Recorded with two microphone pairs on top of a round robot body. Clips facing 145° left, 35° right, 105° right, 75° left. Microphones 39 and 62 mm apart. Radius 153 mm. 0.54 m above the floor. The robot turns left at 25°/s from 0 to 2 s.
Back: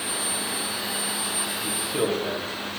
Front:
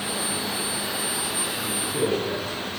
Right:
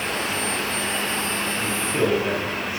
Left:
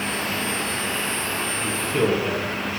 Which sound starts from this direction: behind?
A man speaking, at 1.6 s.